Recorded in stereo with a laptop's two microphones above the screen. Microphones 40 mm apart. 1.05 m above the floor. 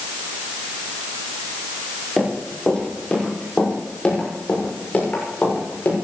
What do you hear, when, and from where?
2.2 s running footsteps: centre (ahead or behind), 5.5 m; by 6.0 s 40° left (ahead or behind), 7.5 m